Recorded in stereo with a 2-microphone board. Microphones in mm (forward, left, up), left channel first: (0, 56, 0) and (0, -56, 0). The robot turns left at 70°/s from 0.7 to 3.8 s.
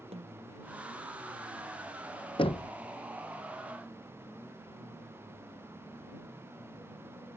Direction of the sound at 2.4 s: 55° left (ahead or behind).